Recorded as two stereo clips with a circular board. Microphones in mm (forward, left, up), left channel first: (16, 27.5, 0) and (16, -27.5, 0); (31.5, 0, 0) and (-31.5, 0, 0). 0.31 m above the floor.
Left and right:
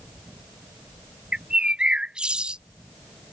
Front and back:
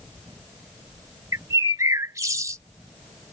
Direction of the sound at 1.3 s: 160° right.